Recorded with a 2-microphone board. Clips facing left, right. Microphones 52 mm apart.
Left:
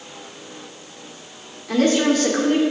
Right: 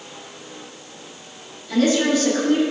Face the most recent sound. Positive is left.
turn(degrees=60)  # may be behind; listen again after turning